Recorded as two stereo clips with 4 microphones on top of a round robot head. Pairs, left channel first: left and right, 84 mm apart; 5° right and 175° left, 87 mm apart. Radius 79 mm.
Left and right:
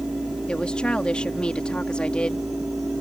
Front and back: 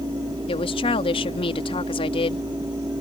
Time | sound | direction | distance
0.5 | a woman speaking | 10° left | ?